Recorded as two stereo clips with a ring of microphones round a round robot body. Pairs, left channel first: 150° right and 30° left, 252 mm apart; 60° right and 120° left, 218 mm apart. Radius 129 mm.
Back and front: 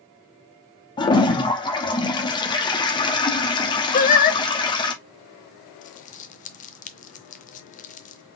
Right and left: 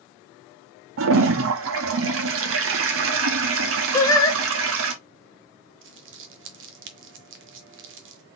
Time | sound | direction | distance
1.0 | a toilet flushing | 140° left | 0.8 m
3.9 | singing | 125° right | 0.7 m
5.8 | crumpling | 155° left | 0.5 m